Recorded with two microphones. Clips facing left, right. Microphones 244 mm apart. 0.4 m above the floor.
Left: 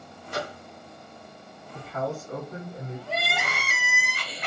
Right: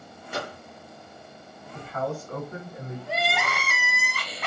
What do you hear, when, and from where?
0.3 s a microwave: 5° right (ahead or behind), 1.2 m
1.7 s a man speaking: 10° left (ahead or behind), 1.8 m
3.1 s crying: 20° left (ahead or behind), 0.9 m